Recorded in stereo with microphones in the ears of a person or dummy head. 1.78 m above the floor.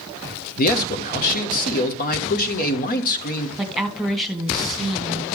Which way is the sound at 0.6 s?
50° left (ahead or behind).